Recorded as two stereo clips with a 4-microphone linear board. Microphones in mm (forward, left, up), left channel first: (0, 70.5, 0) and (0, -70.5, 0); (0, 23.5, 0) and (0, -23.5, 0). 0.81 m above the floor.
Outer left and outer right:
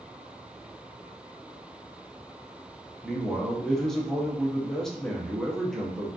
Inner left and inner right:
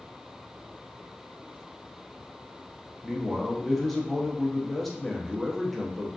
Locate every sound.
3.0 s a man speaking: 5° left (ahead or behind), 0.6 m